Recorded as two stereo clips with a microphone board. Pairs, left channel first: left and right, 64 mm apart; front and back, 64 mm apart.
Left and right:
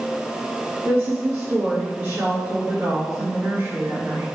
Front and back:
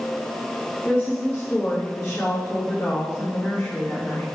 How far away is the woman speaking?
About 2.5 m.